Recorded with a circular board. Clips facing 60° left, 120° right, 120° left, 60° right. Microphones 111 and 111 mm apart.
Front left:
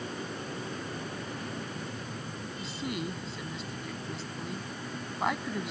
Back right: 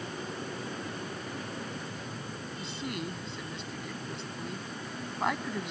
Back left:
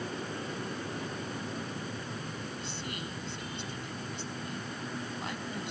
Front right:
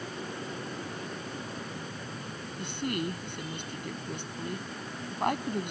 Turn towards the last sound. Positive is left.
turn(degrees=-30)